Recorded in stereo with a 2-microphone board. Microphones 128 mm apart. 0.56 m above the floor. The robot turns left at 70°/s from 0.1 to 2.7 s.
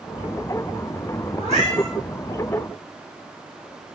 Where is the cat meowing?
50° right, 6.5 m; by 1.9 s 90° right, 6.5 m.